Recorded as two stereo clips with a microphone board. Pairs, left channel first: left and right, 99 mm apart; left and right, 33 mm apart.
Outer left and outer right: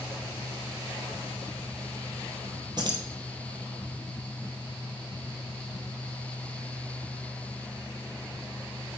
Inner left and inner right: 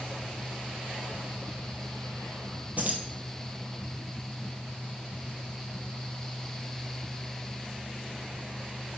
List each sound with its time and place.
2.8 s keys jangling: 50° right (ahead or behind), 1.8 m